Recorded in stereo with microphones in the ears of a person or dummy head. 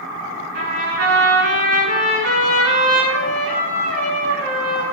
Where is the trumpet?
65° right (ahead or behind), 5 m.